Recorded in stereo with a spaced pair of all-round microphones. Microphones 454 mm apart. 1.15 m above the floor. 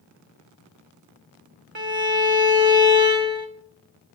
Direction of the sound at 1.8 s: 80° right.